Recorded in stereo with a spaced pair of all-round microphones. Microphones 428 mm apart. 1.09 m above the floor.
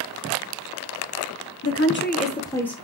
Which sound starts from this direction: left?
A woman speaking, at 1.6 s.